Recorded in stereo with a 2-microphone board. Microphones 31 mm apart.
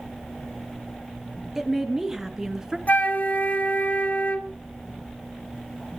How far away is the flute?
About 1.2 m.